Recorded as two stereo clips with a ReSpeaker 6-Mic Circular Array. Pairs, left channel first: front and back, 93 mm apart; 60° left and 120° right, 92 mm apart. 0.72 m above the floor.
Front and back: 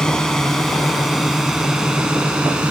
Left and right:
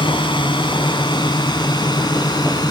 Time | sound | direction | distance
0.0 | a drone | 85° left | ?